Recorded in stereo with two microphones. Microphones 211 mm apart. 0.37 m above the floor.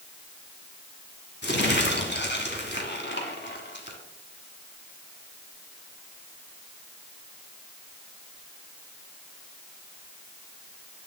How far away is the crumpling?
About 1.8 m.